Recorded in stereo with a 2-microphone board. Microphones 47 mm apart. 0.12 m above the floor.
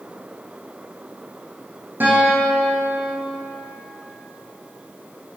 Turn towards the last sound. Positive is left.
turn(degrees=-40)  # may be behind; listen again after turning